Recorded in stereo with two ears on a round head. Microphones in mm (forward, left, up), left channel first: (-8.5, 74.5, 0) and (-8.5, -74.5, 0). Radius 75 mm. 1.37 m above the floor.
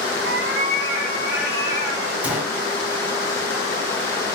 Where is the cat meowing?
70° right (ahead or behind), 3 m; by 2.1 s 55° right (ahead or behind), 3.5 m.